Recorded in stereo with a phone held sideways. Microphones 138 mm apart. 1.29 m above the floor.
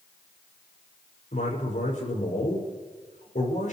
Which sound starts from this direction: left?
A man speaking, at 1.3 s.